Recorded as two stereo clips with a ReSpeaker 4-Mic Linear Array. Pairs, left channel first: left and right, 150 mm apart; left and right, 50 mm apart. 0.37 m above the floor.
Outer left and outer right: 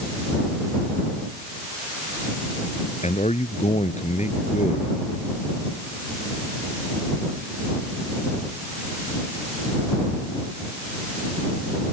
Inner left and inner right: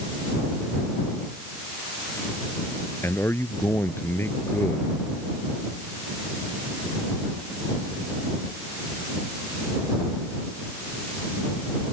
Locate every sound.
3.0 s a man speaking: 45° left (ahead or behind)